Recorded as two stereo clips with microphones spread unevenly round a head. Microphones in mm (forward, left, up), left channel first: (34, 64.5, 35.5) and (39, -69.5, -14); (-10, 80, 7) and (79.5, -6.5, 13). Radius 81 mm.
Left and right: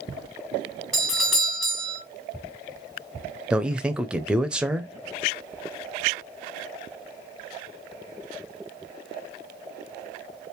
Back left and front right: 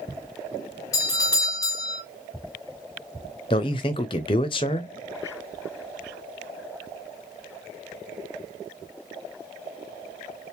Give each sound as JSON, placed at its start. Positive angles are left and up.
{"t": 0.9, "sound": "a doorbell", "azimuth_deg": -165, "distance_m": 0.8}
{"t": 3.5, "sound": "a man speaking", "azimuth_deg": -165, "distance_m": 0.5}